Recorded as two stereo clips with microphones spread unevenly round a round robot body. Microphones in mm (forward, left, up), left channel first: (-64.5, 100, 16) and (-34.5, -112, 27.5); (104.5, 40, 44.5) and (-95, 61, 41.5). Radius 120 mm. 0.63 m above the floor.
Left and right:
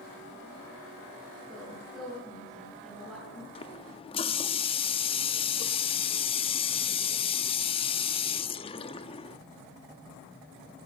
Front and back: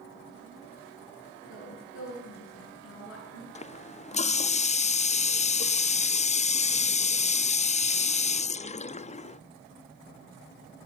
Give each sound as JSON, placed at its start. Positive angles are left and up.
{"t": 1.5, "sound": "a woman speaking", "azimuth_deg": 10, "distance_m": 10.0}
{"t": 3.5, "sound": "a running tap", "azimuth_deg": 40, "distance_m": 0.5}